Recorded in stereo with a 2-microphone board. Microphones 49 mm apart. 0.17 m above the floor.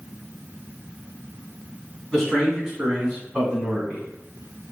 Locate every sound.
2.1 s a man speaking: 10° left (ahead or behind), 1.5 m; by 4.0 s 25° right (ahead or behind), 1.5 m